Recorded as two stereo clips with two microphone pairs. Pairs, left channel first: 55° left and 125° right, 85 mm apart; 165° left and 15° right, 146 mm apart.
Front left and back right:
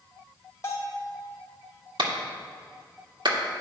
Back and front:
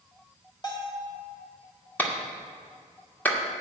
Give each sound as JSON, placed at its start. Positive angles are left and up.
{"t": 0.6, "sound": "a bell", "azimuth_deg": 110, "distance_m": 2.0}
{"t": 2.0, "sound": "a clap", "azimuth_deg": -120, "distance_m": 1.3}